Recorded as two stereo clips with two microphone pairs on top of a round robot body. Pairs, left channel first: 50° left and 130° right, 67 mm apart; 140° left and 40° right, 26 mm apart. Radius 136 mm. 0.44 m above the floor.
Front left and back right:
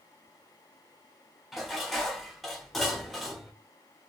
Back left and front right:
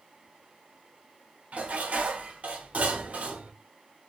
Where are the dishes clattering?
30° right, 1.0 m.